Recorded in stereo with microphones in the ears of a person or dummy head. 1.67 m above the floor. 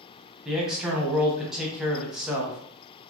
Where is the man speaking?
Centre (ahead or behind), 0.6 m.